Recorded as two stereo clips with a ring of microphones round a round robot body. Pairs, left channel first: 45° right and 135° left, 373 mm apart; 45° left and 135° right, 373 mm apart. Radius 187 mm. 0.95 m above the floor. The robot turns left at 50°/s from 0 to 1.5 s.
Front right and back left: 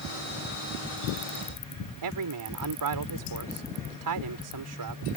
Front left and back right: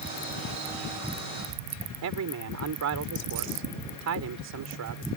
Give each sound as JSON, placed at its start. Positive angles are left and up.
{"t": 2.0, "sound": "a man speaking", "azimuth_deg": 175}